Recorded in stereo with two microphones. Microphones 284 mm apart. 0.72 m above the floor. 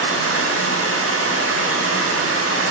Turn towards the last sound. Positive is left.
turn(degrees=-50)  # may be behind; listen again after turning